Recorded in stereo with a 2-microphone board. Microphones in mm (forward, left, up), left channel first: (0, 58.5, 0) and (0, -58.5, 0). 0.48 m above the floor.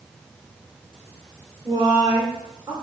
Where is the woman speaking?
35° right (ahead or behind), 0.9 m.